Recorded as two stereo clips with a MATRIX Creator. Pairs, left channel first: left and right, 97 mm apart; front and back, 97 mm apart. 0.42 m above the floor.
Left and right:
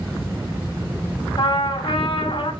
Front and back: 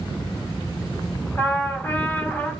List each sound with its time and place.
1.4 s a trumpet: 70° left, 3.5 m